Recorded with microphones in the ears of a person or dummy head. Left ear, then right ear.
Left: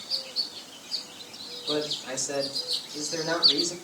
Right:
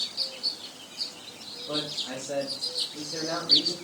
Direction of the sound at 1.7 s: 80° left.